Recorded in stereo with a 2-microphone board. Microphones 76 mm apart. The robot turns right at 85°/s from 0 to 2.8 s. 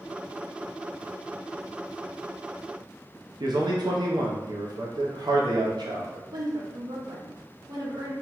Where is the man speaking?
65° right (ahead or behind), 0.5 m.